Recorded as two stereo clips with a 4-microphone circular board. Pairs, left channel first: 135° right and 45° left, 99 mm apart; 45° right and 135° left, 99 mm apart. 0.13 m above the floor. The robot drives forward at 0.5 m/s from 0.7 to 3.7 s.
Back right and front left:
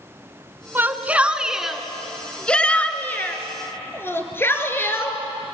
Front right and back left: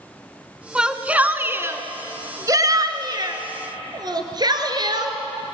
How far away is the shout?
About 1.2 m.